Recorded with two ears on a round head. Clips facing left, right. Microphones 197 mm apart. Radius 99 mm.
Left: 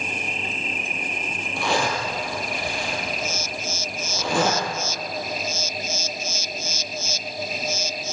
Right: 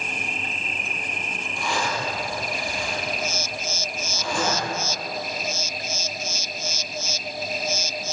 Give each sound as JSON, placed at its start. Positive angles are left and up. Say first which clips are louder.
{"t": 1.6, "sound": "a zipper", "louder": "left 4 dB", "side_deg": 60, "distance_m": 5.0}